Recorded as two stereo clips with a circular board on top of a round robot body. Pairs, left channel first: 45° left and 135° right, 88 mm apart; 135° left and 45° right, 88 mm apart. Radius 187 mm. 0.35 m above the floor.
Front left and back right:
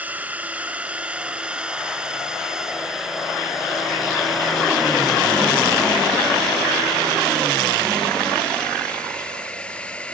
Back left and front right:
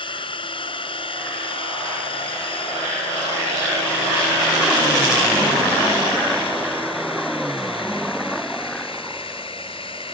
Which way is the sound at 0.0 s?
150° left.